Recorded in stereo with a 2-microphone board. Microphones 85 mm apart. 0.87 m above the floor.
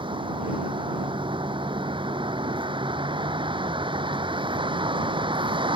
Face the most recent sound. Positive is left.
turn(degrees=-75)  # may be behind; listen again after turning